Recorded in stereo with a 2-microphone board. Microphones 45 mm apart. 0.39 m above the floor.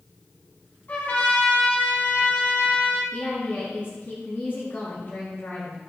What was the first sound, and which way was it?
A trumpet, 45° left (ahead or behind).